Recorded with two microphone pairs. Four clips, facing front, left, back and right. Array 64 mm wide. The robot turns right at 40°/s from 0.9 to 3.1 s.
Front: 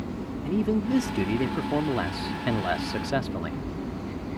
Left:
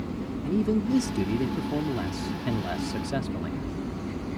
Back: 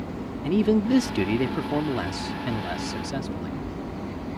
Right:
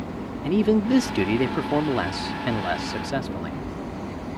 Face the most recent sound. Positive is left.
turn(degrees=-35)